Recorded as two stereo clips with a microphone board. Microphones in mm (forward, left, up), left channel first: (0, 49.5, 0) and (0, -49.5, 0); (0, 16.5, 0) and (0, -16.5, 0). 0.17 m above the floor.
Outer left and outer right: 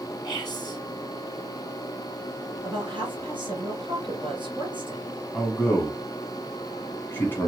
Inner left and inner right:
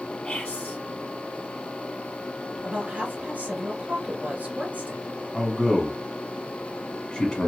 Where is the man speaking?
25° left (ahead or behind), 1.2 m.